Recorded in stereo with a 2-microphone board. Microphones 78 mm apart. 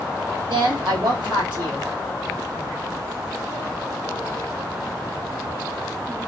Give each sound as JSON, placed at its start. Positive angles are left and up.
{"t": 0.5, "sound": "a woman speaking", "side_deg": -80, "distance_m": 2.5}